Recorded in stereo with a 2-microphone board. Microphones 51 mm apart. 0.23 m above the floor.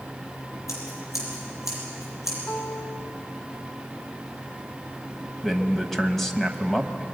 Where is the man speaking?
5° left (ahead or behind), 1.3 m.